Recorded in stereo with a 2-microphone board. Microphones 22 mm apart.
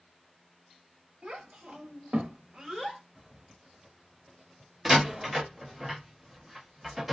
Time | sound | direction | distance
1.2 | a child speaking | 65° right (ahead or behind) | 1.3 m
3.1 | a zipper | 25° right (ahead or behind) | 0.8 m
4.8 | a door slam | 10° right (ahead or behind) | 0.9 m